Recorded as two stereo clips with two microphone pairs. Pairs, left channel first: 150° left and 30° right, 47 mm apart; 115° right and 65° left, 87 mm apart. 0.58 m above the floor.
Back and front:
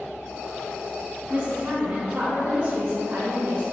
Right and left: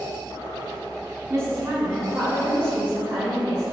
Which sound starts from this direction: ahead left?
A woman speaking, at 1.3 s.